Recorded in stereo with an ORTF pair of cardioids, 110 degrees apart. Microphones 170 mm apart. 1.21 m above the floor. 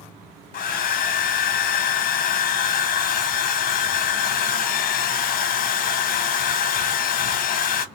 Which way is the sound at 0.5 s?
60° left.